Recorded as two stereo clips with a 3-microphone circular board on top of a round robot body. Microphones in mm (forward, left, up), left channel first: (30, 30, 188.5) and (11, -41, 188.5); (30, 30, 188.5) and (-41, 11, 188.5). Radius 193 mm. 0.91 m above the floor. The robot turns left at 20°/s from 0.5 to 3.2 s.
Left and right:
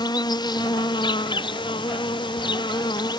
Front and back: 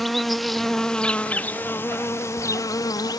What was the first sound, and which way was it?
An insect, 105° left.